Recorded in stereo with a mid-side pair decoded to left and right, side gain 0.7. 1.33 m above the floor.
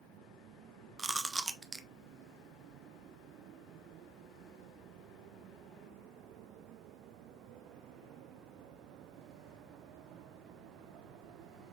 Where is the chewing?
20° right, 0.6 m.